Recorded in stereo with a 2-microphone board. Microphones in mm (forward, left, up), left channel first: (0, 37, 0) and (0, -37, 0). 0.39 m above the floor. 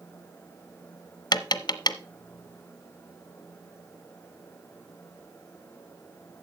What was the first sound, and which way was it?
Tapping, 65° left (ahead or behind).